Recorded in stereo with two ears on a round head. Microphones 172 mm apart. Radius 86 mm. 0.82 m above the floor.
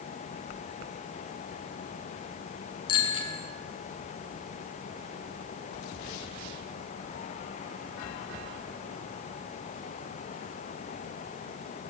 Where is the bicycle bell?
25° left (ahead or behind), 7.5 m.